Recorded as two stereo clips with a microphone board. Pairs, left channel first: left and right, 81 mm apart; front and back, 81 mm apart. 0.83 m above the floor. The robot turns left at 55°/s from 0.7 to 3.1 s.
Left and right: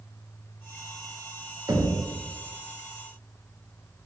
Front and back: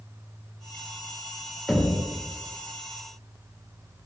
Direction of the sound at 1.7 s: 90° right.